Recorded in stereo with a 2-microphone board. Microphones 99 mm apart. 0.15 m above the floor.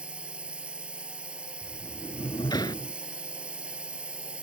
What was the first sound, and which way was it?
A drone, 10° right (ahead or behind).